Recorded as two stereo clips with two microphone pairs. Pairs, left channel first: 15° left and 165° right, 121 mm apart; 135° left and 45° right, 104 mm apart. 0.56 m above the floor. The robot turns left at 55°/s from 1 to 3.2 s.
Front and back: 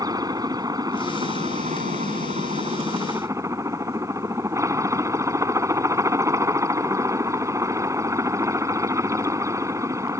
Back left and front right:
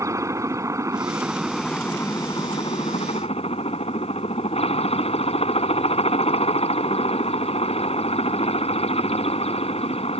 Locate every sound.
0.0 s a helicopter: 105° right; by 10.2 s 130° left